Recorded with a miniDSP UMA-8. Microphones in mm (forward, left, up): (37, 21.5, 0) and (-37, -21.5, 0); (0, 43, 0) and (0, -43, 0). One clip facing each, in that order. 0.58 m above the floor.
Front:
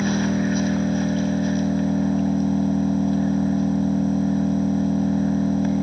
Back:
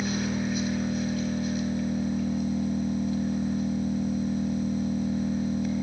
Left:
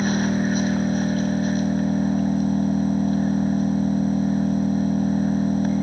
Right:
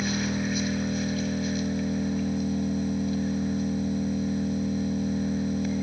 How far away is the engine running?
About 3 m.